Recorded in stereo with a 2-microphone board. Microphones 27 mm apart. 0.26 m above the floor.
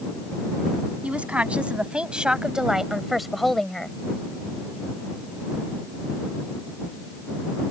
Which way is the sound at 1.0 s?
60° right (ahead or behind).